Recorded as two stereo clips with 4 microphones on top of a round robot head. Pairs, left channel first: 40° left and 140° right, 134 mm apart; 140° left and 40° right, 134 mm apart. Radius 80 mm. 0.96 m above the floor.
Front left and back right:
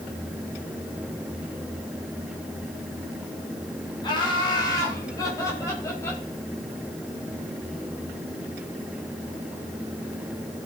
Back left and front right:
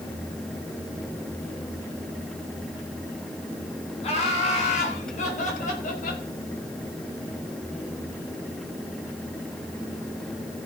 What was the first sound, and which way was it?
Laughter, 95° left.